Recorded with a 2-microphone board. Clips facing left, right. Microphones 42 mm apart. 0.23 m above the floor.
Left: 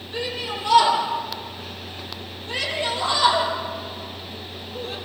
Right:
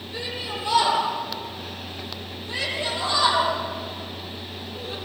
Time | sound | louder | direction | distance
0.1 | a shout | left 3 dB | 45° left (ahead or behind) | 8.5 m